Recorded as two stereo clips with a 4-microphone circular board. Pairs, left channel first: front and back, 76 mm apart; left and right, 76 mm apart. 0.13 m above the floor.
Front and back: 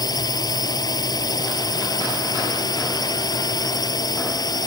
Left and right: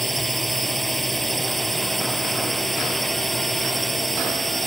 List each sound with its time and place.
0.0 s a drone: straight ahead